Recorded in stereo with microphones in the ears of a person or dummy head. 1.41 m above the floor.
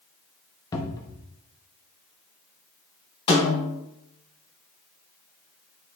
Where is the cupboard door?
20° left (ahead or behind), 1.2 m.